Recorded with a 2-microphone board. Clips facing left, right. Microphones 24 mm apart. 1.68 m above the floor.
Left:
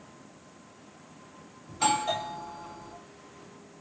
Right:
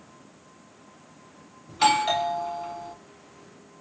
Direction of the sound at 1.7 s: 45° right (ahead or behind).